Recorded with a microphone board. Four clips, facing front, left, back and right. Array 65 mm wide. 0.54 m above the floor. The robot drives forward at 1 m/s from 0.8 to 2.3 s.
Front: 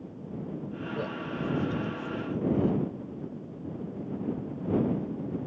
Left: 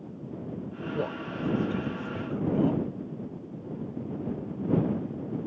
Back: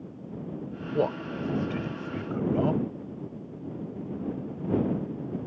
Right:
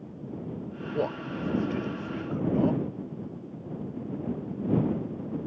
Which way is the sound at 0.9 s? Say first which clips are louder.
Right 3 dB, back 8 dB; 165° right.